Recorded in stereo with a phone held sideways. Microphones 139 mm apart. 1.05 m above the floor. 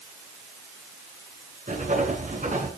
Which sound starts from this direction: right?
Writing, at 1.7 s.